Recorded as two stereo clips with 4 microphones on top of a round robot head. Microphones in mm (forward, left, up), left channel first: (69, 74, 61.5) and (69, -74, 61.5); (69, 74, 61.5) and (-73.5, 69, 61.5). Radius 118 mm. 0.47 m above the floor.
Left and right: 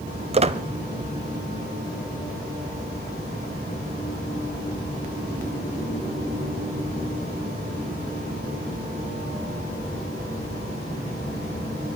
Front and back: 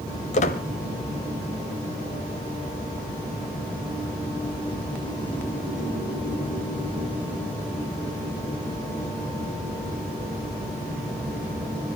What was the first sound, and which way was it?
A squeak, 45° right.